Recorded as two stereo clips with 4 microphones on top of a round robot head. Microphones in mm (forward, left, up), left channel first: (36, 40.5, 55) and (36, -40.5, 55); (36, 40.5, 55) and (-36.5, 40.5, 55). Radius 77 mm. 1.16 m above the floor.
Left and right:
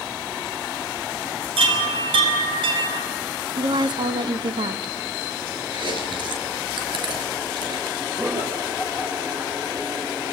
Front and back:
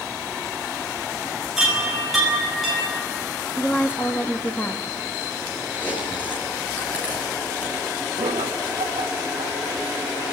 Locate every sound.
1.6 s a chime: 90° right, 6 m
3.6 s a woman speaking: 70° right, 1.7 m
5.7 s chewing: 75° right, 5 m
8.2 s laughter: 160° right, 4.5 m